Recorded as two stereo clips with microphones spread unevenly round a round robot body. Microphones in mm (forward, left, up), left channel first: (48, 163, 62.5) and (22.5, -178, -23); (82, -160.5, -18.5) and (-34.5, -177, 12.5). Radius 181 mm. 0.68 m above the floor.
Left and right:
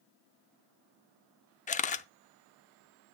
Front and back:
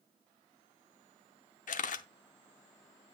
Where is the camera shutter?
15° left, 0.5 m.